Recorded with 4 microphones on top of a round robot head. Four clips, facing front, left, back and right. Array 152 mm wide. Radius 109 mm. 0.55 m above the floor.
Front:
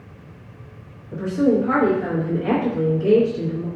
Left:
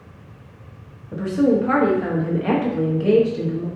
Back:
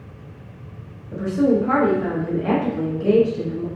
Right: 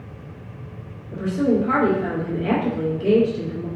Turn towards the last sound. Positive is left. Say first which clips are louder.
# left 2 dB, even
turn(degrees=95)